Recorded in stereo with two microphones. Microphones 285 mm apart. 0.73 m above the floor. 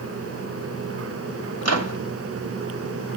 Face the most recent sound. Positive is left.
turn(degrees=-65)  # may be behind; listen again after turning